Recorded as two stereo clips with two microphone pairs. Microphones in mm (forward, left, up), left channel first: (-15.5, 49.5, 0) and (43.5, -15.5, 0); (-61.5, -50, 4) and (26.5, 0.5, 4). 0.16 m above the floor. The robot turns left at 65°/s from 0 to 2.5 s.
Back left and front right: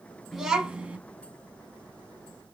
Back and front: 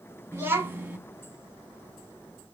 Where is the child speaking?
35° left, 0.6 m; by 1.0 s 10° right, 0.6 m.